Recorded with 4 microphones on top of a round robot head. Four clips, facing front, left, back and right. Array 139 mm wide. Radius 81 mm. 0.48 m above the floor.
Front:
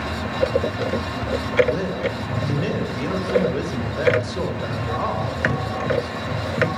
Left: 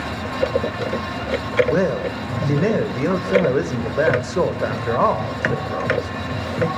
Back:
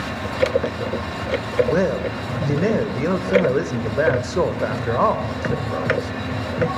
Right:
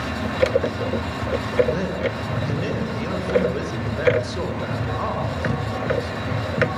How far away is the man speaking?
About 2.5 m.